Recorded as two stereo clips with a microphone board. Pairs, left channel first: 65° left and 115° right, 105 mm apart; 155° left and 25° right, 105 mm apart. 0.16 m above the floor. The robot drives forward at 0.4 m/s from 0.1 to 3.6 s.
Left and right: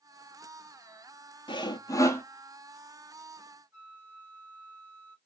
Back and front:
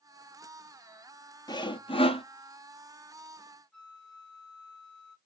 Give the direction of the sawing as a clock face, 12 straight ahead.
8 o'clock.